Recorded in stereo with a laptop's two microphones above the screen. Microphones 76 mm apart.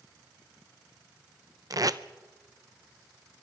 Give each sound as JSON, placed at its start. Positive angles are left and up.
{"t": 1.7, "sound": "tape being pulled", "side_deg": -55, "distance_m": 0.6}